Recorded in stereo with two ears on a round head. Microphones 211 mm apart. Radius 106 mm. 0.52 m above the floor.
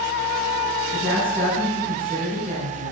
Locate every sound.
0.9 s a woman speaking: 30° right (ahead or behind), 3 m